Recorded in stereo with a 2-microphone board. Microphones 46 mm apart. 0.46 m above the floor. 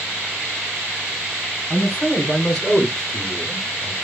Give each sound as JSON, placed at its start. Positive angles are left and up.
{"t": 1.7, "sound": "a man speaking", "side_deg": 40, "distance_m": 1.0}